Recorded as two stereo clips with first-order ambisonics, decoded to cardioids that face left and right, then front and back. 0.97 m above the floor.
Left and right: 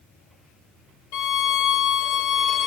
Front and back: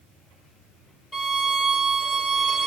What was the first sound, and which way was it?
A violin, 80° left.